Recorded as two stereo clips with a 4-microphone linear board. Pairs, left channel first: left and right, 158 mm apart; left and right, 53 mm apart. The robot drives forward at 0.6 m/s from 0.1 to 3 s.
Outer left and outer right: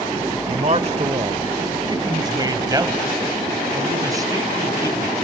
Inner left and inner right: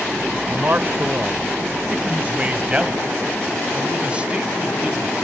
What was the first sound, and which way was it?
A man speaking, 45° right (ahead or behind).